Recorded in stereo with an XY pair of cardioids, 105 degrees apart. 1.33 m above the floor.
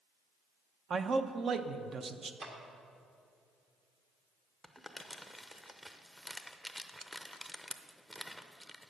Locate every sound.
0.9 s a man speaking: 45° right, 0.7 m
2.4 s a clap: 55° right, 1.8 m
4.6 s crumpling: straight ahead, 0.7 m